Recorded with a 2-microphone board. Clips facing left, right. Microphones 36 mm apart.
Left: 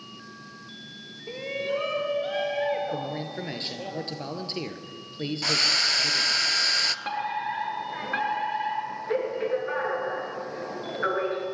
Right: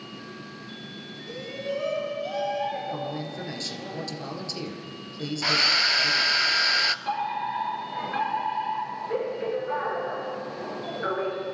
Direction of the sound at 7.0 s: 30° left (ahead or behind).